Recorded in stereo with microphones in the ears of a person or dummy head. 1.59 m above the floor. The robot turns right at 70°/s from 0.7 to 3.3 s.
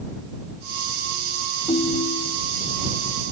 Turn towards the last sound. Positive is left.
turn(degrees=145)